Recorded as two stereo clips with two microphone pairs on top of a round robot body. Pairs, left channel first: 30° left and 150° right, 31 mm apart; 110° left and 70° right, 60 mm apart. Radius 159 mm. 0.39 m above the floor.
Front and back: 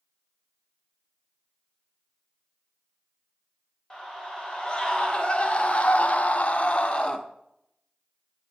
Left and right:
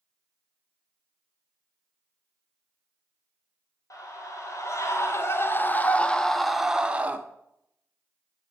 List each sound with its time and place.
3.9 s a scream: 100° left, 3 m; by 7.2 s 20° right, 1.9 m